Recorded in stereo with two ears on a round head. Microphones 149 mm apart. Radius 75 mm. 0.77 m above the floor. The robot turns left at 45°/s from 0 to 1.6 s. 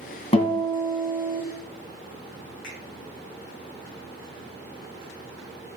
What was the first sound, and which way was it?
A guitar, 35° left.